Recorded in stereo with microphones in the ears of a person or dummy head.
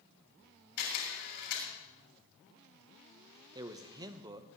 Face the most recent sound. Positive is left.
turn(degrees=-20)  # may be behind; listen again after turning